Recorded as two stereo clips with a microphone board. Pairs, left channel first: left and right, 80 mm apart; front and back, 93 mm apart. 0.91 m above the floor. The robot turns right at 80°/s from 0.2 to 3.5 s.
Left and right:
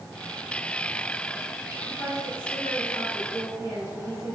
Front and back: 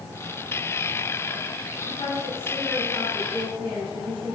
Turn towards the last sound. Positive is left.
turn(degrees=150)